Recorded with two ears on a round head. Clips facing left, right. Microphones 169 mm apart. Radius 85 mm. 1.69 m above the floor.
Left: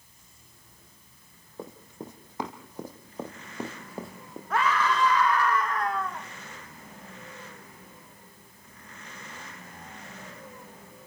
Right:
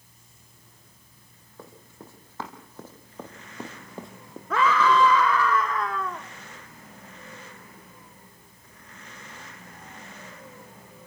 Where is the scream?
70° right (ahead or behind), 1.4 m.